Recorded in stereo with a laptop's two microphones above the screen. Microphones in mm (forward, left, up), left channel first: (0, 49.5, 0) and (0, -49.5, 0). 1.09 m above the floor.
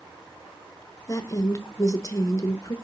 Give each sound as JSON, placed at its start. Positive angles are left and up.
{"t": 1.1, "sound": "a woman speaking", "side_deg": 35, "distance_m": 0.6}